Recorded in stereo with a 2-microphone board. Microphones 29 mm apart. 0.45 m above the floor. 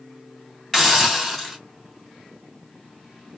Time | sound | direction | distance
0.7 | a hiss | 10° left (ahead or behind) | 1.7 m